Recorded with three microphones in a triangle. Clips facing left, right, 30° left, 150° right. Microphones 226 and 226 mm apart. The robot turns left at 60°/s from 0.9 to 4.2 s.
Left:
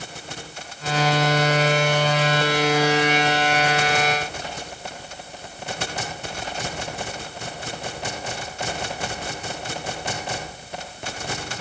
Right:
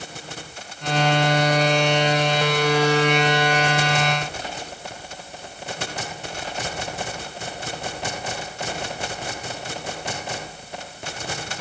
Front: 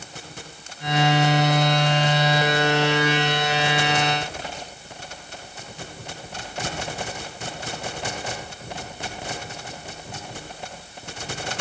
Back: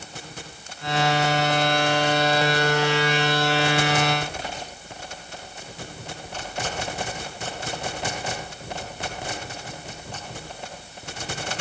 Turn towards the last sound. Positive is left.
No sound to turn to.